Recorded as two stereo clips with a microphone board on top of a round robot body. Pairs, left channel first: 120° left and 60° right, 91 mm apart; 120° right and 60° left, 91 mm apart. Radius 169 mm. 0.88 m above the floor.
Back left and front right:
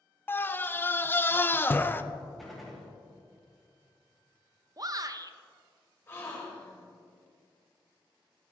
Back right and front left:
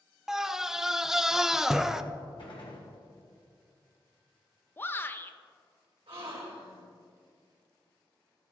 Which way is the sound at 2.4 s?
150° right.